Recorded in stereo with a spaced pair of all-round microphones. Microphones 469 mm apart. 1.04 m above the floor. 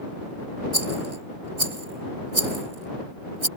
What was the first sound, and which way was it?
A rattle, 75° right (ahead or behind).